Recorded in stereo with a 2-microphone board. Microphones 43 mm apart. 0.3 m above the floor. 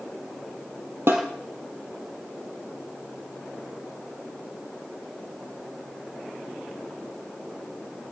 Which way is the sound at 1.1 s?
65° right (ahead or behind).